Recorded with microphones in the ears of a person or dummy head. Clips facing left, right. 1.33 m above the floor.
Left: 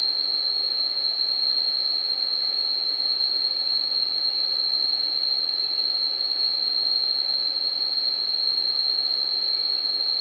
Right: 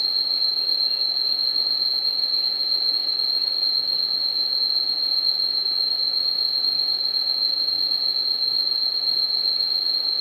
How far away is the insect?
About 2.0 m.